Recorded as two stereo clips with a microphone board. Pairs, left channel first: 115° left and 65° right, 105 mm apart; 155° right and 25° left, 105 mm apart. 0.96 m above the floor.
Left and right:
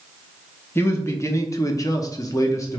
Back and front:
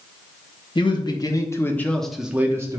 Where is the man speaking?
175° left, 0.9 m; by 2.8 s 65° left, 0.7 m.